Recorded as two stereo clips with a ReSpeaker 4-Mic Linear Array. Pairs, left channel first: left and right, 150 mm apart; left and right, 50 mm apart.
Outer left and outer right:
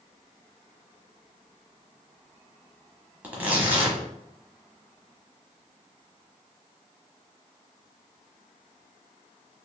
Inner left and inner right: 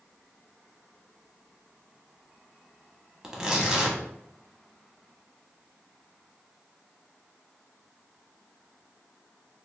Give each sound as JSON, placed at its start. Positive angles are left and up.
{"t": 3.2, "sound": "tearing paper", "side_deg": -15, "distance_m": 1.1}